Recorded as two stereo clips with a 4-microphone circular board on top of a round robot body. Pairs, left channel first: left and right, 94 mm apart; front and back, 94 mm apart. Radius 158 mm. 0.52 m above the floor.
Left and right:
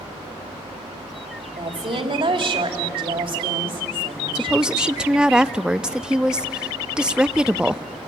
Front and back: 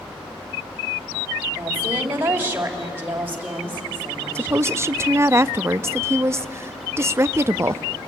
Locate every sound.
1.6 s a woman speaking: 110° right, 2.5 m
4.3 s a woman speaking: 160° right, 0.6 m